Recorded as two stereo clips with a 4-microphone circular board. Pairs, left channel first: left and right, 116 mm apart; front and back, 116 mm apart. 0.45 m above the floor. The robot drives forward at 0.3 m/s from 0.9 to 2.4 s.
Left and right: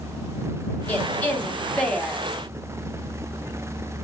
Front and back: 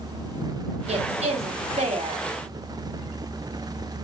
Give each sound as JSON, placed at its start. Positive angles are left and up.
{"t": 0.9, "sound": "a woman speaking", "azimuth_deg": 165, "distance_m": 2.5}